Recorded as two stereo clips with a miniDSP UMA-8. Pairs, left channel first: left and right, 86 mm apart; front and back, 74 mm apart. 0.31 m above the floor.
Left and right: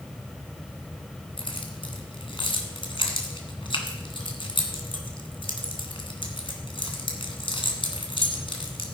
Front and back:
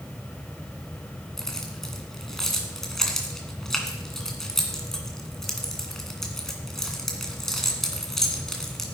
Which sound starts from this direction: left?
Keys jangling, at 1.4 s.